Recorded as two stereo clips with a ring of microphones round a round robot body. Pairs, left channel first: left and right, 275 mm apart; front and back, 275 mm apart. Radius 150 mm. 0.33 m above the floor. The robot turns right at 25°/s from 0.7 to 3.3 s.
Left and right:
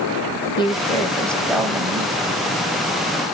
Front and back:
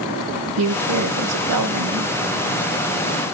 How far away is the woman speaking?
About 2 m.